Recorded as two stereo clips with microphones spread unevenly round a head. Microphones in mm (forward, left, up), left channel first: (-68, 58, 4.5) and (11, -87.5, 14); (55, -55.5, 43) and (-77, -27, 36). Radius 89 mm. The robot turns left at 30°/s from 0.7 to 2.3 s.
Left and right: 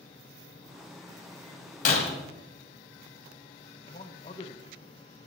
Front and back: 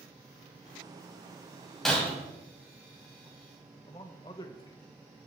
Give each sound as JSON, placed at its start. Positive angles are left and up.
{"t": 1.9, "sound": "breaking glass", "azimuth_deg": 75, "distance_m": 2.0}
{"t": 3.9, "sound": "a man speaking", "azimuth_deg": 55, "distance_m": 1.0}